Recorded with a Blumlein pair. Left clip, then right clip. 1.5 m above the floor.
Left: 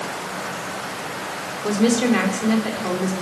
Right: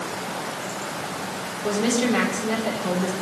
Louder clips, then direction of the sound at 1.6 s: Left 3 dB; 15° left.